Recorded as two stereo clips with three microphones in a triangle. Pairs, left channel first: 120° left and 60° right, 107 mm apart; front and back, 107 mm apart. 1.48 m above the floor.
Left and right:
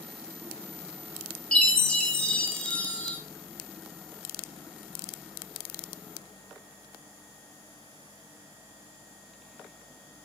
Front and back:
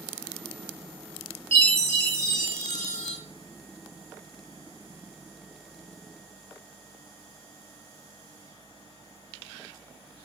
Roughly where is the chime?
Behind.